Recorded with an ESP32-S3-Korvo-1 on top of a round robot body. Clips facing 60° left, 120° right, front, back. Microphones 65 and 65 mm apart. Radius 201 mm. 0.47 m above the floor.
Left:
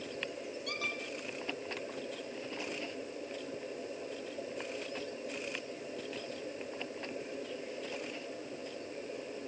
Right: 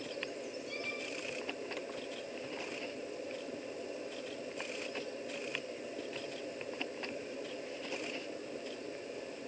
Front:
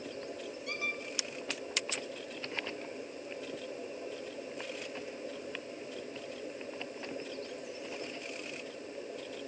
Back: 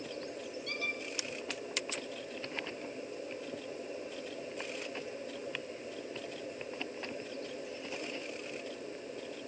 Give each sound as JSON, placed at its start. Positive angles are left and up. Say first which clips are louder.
{"t": 0.7, "sound": "a squeak", "louder": "left 5 dB, front 1 dB", "azimuth_deg": 75, "distance_m": 1.1}